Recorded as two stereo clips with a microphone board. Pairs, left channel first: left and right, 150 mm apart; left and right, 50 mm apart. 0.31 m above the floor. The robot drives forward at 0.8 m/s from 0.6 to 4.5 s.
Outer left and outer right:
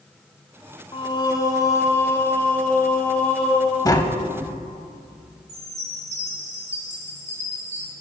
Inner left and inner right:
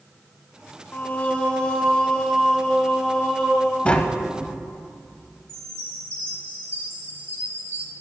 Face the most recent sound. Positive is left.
turn(degrees=-50)  # may be behind; listen again after turning